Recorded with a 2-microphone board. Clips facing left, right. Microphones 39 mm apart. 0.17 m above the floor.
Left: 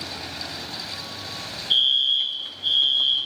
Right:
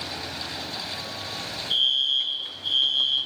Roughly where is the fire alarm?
Left.